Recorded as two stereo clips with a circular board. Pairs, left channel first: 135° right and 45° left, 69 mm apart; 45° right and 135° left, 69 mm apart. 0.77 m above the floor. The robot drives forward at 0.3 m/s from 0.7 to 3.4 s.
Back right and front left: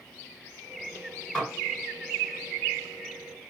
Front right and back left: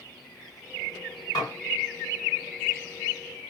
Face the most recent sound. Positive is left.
turn(degrees=-75)